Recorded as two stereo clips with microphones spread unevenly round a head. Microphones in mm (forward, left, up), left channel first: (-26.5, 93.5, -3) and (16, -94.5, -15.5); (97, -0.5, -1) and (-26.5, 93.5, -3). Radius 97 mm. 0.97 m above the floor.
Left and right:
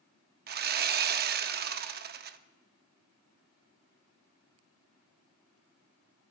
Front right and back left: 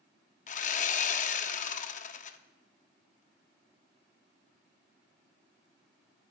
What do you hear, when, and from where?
0.5 s sawing: 55° right, 0.6 m